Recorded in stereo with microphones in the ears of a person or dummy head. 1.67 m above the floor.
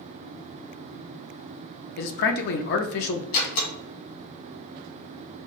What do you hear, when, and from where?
2.0 s a man speaking: 65° left (ahead or behind), 0.6 m
3.3 s a door slam: 65° left (ahead or behind), 1.7 m